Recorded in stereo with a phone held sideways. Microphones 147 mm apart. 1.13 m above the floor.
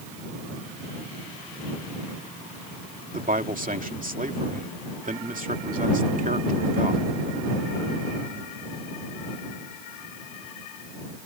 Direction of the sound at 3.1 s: 65° right (ahead or behind).